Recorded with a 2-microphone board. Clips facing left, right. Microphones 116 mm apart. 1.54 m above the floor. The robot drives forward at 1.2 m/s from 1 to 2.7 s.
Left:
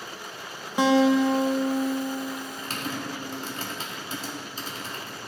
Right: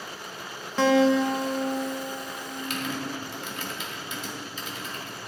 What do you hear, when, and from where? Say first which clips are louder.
0.8 s a guitar: left 1 dB; 15° left (ahead or behind), 0.8 m; by 3.3 s 5° left (ahead or behind), 3 m
2.6 s typing on a keyboard: right 1 dB; 40° left (ahead or behind), 1.6 m; by 5.2 s 35° left (ahead or behind), 1.7 m